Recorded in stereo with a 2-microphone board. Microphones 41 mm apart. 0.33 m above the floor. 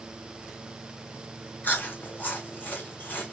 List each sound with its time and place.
1.6 s chewing: 45° left (ahead or behind), 1.3 m